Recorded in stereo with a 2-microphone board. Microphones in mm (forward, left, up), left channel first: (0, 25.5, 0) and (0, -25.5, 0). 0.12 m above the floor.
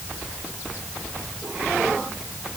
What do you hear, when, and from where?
Only background noise.